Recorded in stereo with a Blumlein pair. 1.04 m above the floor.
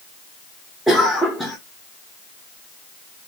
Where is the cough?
5° left, 0.7 m.